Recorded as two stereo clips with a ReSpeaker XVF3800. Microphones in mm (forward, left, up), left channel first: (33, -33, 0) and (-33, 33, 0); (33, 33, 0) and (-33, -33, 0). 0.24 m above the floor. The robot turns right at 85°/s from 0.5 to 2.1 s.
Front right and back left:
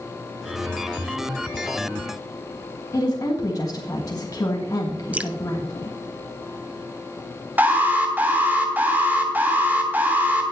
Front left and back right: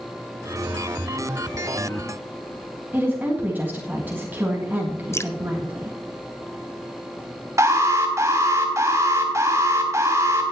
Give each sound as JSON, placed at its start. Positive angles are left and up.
{"t": 2.9, "sound": "a woman speaking", "azimuth_deg": -70, "distance_m": 2.0}
{"t": 5.1, "sound": "dripping", "azimuth_deg": 75, "distance_m": 0.5}
{"t": 7.6, "sound": "an alarm", "azimuth_deg": -165, "distance_m": 2.5}